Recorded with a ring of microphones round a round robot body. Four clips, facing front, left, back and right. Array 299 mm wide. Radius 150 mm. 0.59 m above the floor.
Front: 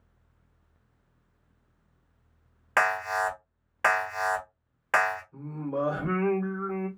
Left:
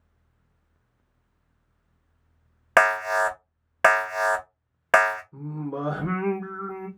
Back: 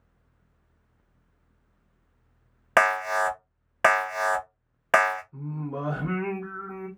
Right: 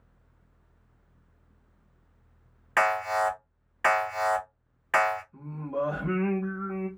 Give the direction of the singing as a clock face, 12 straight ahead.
9 o'clock.